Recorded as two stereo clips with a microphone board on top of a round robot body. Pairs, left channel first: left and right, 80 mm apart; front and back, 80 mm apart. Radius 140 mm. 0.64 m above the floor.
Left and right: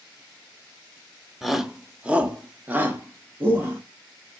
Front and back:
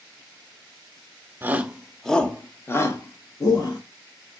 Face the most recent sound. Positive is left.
turn(degrees=-30)